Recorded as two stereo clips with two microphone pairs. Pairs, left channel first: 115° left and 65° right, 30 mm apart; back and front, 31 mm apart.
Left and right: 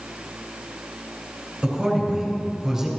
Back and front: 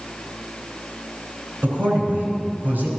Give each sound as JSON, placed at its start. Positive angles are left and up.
{"t": 1.6, "sound": "a man speaking", "azimuth_deg": 10, "distance_m": 4.0}